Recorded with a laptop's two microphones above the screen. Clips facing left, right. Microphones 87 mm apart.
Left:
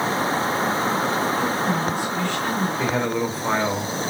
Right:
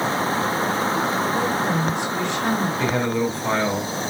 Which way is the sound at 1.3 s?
20° right (ahead or behind).